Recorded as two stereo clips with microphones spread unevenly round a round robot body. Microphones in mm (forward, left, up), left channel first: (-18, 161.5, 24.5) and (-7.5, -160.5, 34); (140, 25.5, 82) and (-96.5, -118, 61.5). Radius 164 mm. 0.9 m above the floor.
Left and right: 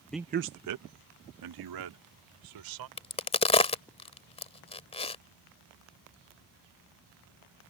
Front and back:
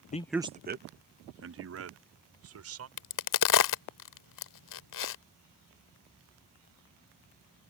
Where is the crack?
20° left.